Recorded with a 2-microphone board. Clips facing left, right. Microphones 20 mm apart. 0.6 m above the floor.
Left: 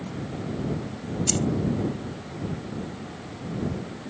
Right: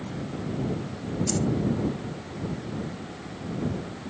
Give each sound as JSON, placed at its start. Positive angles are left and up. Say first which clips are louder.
{"t": 1.3, "sound": "keys jangling", "louder": "left 2 dB", "side_deg": 50}